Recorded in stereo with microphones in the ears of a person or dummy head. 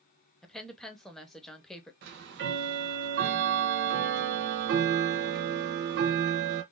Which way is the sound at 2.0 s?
55° right (ahead or behind).